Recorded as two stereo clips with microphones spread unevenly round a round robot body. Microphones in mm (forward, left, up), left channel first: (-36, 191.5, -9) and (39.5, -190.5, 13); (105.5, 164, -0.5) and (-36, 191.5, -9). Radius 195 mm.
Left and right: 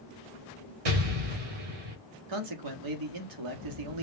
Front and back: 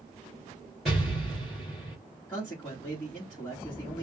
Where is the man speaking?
90° right, 1.4 m.